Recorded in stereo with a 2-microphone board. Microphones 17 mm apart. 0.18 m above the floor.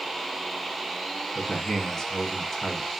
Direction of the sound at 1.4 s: 30° left (ahead or behind).